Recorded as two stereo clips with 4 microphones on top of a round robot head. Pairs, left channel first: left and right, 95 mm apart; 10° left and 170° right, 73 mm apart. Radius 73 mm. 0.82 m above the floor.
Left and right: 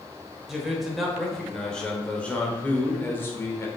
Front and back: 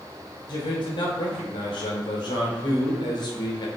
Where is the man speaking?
5° right, 4 m; by 3.7 s 30° left, 3.5 m.